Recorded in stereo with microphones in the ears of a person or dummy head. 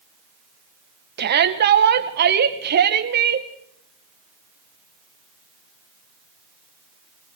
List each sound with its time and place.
1.2 s a shout: 60° right (ahead or behind), 1.9 m